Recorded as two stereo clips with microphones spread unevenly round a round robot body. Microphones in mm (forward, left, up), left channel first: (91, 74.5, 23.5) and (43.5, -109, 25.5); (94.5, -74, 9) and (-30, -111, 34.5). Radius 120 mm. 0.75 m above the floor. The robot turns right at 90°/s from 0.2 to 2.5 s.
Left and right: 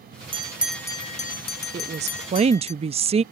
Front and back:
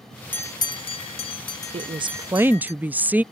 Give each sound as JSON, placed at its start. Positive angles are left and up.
{"t": 0.3, "sound": "a bell", "azimuth_deg": -50}
{"t": 1.7, "sound": "a woman speaking", "azimuth_deg": -145}